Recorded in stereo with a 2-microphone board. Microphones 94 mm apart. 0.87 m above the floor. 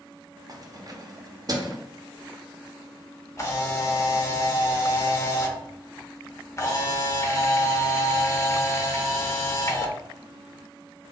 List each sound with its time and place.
0.5 s keys jangling: 45° right (ahead or behind), 0.6 m
3.4 s a camera shutter: 30° left (ahead or behind), 0.7 m